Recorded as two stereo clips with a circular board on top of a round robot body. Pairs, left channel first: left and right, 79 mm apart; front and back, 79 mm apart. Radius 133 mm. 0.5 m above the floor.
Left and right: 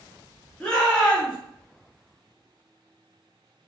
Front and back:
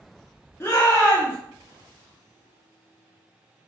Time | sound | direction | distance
0.6 | a shout | 25° left | 1.5 m